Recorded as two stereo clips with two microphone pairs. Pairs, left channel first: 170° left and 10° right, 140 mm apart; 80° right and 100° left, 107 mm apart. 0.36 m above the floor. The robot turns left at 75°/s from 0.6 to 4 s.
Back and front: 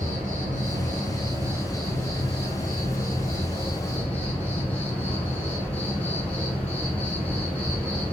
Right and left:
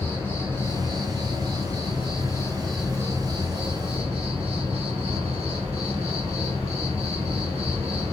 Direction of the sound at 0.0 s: 10° right.